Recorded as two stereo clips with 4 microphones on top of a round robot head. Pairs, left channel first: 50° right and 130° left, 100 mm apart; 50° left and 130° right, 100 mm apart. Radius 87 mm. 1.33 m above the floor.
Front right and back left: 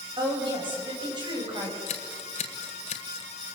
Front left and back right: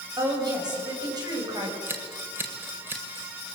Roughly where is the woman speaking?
Behind.